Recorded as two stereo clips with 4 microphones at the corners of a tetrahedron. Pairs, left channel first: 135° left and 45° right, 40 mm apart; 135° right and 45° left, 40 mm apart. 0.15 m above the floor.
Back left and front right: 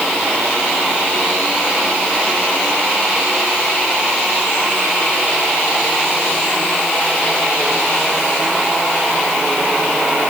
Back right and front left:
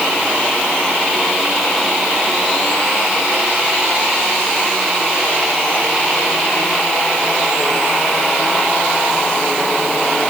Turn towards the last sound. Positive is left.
No sound to turn to.